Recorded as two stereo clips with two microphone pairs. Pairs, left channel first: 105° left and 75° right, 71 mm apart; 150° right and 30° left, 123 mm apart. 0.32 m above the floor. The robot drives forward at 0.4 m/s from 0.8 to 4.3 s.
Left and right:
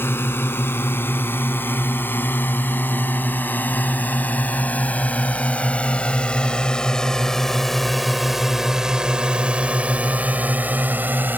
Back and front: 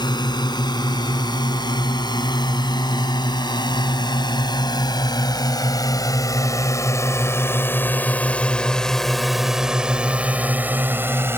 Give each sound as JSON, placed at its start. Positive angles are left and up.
{"t": 0.0, "sound": "a drone", "azimuth_deg": 160}